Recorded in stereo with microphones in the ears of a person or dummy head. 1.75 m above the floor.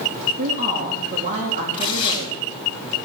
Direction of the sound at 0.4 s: 45° right (ahead or behind).